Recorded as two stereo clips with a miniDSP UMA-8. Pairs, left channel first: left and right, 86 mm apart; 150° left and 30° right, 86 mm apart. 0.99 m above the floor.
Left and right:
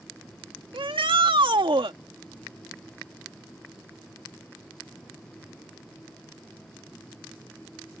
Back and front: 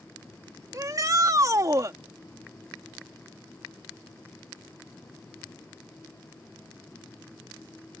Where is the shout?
80° right.